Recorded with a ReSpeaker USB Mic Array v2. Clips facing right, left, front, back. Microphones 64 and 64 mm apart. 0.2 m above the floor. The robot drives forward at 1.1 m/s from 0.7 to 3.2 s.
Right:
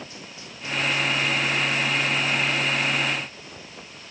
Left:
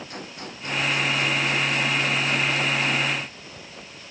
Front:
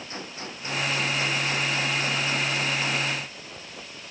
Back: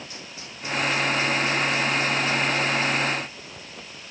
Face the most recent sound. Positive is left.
turn(degrees=65)